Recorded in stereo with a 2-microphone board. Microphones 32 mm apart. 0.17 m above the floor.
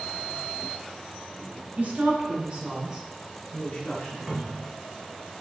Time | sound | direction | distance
1.8 | a woman speaking | 50° right (ahead or behind) | 2 m
4.3 | a cupboard door | 10° right (ahead or behind) | 1.1 m